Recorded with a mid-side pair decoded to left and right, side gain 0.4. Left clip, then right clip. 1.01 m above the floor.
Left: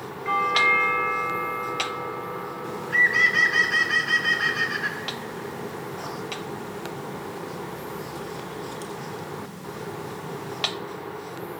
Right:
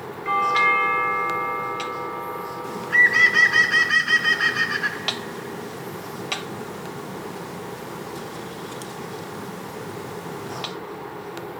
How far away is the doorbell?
About 3 m.